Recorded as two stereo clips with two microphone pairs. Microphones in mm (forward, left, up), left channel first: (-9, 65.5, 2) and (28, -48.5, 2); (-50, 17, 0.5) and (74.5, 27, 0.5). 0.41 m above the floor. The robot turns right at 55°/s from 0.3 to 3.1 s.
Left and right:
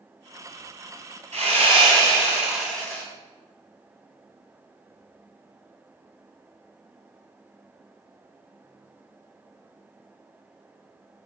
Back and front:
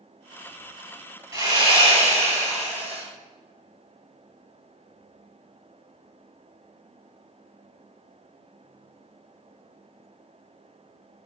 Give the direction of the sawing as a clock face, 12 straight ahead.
2 o'clock.